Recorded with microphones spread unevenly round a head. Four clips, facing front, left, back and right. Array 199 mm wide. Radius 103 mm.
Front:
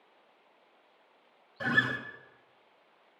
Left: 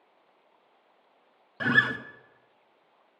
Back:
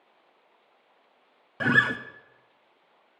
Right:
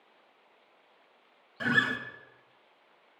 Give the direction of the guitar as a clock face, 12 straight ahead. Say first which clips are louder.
Left 3 dB, back 6 dB; 6 o'clock.